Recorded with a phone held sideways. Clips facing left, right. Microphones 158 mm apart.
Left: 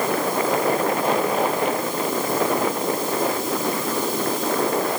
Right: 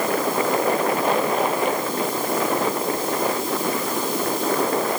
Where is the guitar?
I don't hear a guitar.